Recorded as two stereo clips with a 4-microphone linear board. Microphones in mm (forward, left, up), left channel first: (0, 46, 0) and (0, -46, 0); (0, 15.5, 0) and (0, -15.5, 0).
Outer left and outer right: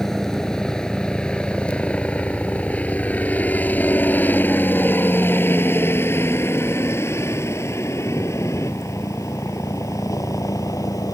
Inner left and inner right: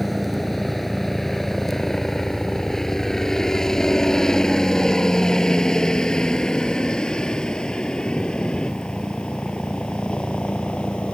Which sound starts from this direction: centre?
A helicopter, at 0.0 s.